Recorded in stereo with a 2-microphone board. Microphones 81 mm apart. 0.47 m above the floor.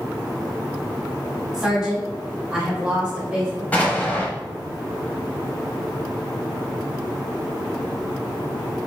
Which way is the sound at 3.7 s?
20° left (ahead or behind).